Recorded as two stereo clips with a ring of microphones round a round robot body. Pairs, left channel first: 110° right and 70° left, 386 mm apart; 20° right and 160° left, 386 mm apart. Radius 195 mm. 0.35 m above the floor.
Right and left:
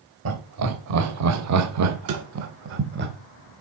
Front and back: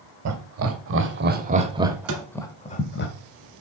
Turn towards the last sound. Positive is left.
turn(degrees=115)